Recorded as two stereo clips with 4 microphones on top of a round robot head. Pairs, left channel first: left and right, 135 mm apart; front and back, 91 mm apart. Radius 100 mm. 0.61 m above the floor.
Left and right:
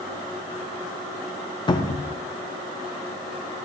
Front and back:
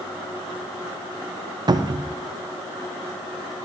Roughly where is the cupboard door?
Behind left.